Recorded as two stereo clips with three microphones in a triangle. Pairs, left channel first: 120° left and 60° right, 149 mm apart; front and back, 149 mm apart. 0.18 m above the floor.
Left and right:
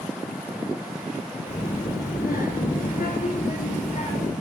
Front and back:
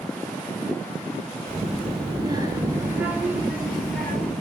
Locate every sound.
1.5 s a child speaking: 145° left, 1.4 m; by 4.3 s 80° left, 1.9 m